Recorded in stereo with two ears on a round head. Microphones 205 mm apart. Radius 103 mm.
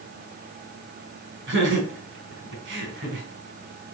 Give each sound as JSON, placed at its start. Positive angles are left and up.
{"t": 1.5, "sound": "laughter", "side_deg": -55, "distance_m": 4.0}